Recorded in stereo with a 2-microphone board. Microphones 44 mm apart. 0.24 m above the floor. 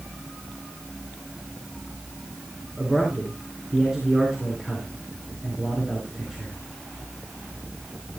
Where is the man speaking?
10° right (ahead or behind), 3.5 m.